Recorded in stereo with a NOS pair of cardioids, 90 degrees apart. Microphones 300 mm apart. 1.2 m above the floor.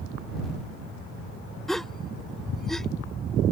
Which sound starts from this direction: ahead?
A gasp, at 1.7 s.